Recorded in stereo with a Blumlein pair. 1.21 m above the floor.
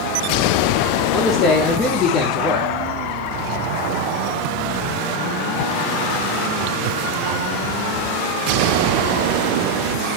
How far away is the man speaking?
About 1.4 m.